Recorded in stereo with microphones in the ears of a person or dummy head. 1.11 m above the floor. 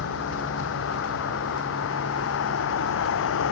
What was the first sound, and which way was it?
A vehicle, 70° left (ahead or behind).